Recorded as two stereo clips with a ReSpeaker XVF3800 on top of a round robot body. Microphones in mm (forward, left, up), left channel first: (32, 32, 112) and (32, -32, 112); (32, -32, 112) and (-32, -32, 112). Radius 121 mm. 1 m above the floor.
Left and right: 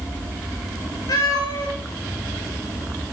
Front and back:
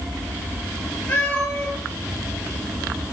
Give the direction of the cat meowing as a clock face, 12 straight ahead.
10 o'clock.